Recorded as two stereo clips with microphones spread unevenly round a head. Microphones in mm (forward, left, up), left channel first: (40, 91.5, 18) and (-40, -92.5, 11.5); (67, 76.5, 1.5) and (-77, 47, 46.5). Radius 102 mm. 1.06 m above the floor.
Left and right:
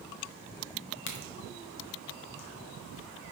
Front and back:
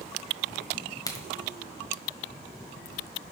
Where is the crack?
85° left, 1.4 m.